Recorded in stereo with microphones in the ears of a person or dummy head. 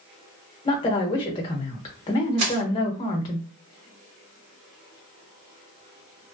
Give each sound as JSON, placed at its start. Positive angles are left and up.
{"t": 0.7, "sound": "a woman speaking", "side_deg": 20, "distance_m": 0.9}
{"t": 2.4, "sound": "crushing", "side_deg": -80, "distance_m": 1.6}